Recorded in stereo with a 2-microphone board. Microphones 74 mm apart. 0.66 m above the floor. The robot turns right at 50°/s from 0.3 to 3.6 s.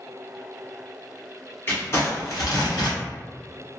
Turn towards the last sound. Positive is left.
turn(degrees=120)